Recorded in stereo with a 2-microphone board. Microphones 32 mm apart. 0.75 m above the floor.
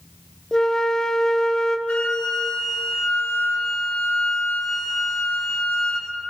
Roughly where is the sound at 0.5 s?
Left.